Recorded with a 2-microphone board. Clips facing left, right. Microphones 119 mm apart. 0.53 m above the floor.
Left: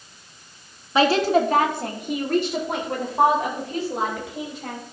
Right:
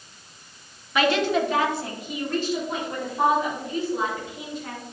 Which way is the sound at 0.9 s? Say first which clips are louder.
Left 3 dB; 30° left (ahead or behind).